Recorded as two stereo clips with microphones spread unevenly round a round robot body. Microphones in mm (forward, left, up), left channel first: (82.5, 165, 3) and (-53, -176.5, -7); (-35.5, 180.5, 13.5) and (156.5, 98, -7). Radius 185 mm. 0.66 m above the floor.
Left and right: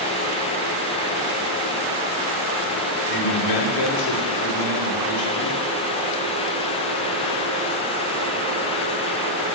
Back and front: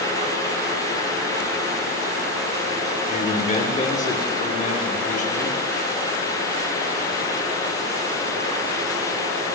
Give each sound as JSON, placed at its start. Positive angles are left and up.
{"t": 3.1, "sound": "a man speaking", "azimuth_deg": 100, "distance_m": 1.5}